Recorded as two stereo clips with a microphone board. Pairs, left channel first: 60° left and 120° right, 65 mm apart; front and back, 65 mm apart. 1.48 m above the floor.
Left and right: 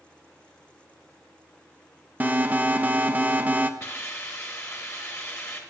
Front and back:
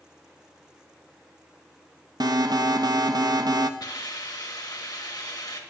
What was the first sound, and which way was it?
An alarm, 175° left.